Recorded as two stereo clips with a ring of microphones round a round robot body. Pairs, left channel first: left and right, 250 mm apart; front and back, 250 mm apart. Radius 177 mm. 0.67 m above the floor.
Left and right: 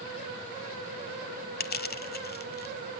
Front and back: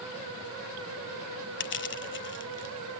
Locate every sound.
1.6 s crushing: 40° left, 0.9 m